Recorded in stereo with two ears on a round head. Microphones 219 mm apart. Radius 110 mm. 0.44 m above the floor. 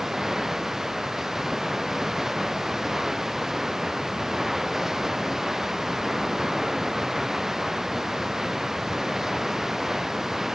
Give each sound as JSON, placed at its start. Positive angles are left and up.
{"t": 0.0, "sound": "running water", "side_deg": 0}